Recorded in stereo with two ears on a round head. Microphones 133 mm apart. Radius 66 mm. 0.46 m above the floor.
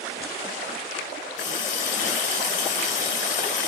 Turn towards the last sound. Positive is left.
turn(degrees=50)  # may be behind; listen again after turning